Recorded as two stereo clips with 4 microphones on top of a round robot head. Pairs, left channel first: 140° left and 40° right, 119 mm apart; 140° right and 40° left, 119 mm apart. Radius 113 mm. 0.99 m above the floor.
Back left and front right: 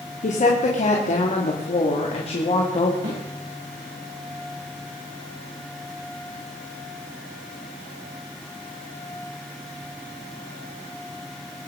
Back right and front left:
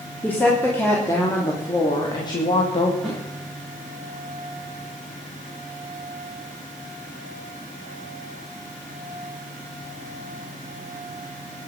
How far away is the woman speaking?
About 3 m.